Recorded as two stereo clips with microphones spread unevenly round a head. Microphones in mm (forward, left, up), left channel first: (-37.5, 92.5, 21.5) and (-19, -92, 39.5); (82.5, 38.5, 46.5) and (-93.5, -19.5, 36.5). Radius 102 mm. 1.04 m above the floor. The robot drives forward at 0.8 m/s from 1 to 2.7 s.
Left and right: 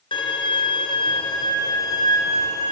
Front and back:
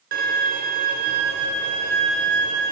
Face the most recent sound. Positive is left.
turn(degrees=170)